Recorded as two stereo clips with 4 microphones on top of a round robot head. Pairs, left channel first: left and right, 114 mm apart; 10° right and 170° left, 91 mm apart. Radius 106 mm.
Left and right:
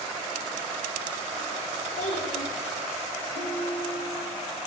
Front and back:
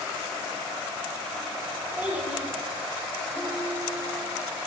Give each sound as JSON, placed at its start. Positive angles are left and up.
{"t": 2.0, "sound": "a child speaking", "azimuth_deg": 95, "distance_m": 9.0}
{"t": 3.4, "sound": "a ringtone", "azimuth_deg": -100, "distance_m": 6.0}